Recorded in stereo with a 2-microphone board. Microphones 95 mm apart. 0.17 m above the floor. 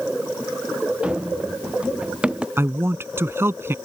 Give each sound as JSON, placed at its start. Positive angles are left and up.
{"t": 1.0, "sound": "running footsteps", "side_deg": -10}
{"t": 2.6, "sound": "a man speaking", "side_deg": -25}